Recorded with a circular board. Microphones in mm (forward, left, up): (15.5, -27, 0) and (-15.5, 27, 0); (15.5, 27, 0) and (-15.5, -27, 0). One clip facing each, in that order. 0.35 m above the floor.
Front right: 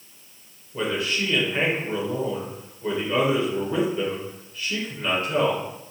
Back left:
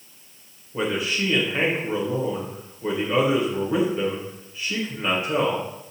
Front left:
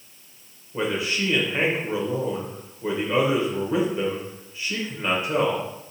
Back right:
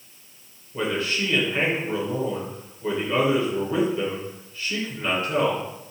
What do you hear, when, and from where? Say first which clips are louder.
0.7 s a man speaking: back left 1 dB, even; 75° left, 0.9 m